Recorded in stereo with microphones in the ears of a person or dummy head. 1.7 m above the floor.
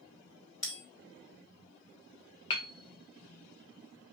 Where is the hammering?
30° left (ahead or behind), 0.6 m.